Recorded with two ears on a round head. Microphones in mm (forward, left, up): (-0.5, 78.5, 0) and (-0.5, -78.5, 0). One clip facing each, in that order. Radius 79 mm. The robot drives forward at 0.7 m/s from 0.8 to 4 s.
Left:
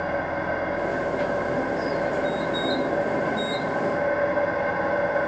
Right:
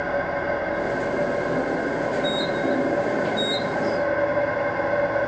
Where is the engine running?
25° right (ahead or behind), 9 m; by 5.3 s 20° right (ahead or behind), 11 m.